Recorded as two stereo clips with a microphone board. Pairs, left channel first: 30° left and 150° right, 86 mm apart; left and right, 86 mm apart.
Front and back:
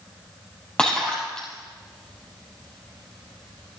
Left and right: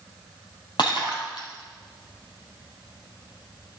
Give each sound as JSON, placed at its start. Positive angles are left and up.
{"t": 0.8, "sound": "breaking glass", "azimuth_deg": 110, "distance_m": 3.5}